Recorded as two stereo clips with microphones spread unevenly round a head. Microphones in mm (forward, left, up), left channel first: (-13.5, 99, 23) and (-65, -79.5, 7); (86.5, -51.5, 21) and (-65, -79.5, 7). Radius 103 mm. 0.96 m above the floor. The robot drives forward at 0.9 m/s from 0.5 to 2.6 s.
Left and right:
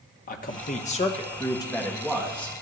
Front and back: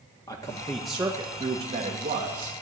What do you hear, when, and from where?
0.3 s a man speaking: 80° left, 1.0 m; by 2.5 s 160° left, 2.0 m